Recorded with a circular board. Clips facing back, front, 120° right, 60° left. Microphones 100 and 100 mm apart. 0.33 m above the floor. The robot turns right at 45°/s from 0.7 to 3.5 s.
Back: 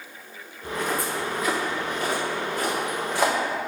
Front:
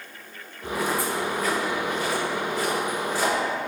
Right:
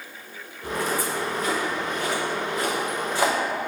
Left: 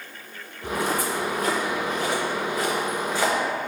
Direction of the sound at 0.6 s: 85° left.